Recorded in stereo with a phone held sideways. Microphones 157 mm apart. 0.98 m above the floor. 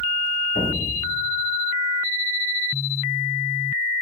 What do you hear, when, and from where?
0.6 s an explosion: 75° left (ahead or behind), 5 m